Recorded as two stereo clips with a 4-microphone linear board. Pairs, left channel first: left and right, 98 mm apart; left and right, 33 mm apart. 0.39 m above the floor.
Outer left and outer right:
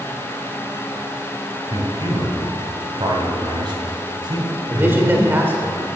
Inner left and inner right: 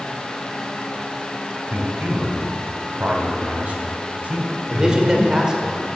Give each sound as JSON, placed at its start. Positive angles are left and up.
{"t": 1.7, "sound": "a man speaking", "side_deg": -50, "distance_m": 2.5}
{"t": 4.7, "sound": "a man speaking", "side_deg": -20, "distance_m": 1.6}